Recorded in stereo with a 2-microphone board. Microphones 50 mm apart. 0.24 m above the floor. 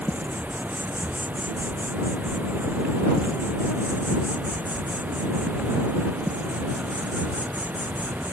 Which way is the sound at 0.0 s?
35° right (ahead or behind).